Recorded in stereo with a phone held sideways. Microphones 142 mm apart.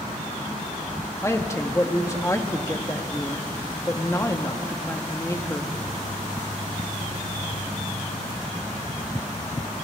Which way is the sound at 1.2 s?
20° left (ahead or behind).